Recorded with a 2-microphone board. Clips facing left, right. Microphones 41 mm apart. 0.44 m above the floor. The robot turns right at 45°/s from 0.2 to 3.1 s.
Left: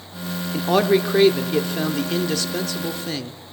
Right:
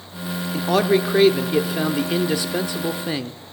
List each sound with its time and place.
0.5 s a man speaking: 5° left (ahead or behind), 0.7 m; by 3.4 s 20° right (ahead or behind), 0.7 m